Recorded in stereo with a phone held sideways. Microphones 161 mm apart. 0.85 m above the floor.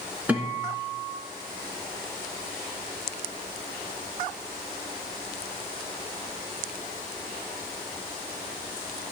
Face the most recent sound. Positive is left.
turn(degrees=-10)  # may be behind; listen again after turning